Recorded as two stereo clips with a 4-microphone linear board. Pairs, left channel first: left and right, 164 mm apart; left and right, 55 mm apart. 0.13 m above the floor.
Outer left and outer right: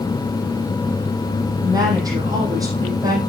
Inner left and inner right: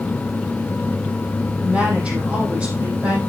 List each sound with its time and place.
1.6 s a woman speaking: 25° right (ahead or behind), 5 m; by 3.2 s 20° right (ahead or behind), 5.5 m